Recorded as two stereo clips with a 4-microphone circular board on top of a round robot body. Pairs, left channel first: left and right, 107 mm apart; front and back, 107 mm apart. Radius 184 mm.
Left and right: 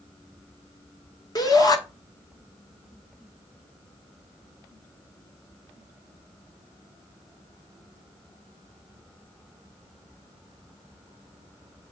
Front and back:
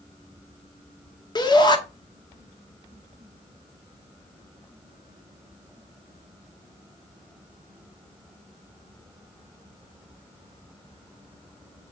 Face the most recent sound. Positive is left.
turn(degrees=45)